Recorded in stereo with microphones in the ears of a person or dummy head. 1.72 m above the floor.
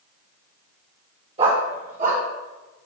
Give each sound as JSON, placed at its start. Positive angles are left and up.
{"t": 1.4, "sound": "a dog barking", "side_deg": -40, "distance_m": 1.9}